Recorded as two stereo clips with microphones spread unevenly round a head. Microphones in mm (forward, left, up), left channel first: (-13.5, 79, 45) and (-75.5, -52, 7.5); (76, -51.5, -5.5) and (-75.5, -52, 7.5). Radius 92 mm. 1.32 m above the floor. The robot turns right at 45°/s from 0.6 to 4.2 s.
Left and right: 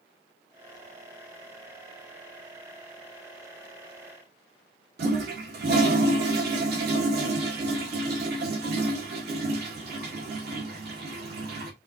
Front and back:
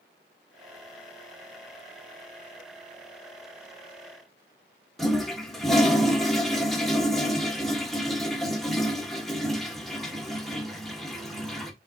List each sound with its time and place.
5.0 s a toilet flushing: 90° right, 1.6 m